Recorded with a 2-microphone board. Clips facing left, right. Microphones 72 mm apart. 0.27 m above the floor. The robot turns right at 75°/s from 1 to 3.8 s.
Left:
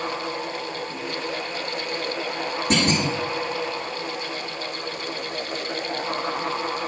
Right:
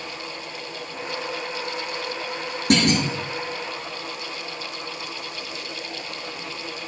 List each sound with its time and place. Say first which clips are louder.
2.7 s a clunk: right 3 dB; 75° right (ahead or behind), 9.5 m; by 3.1 s 70° right (ahead or behind), 9.5 m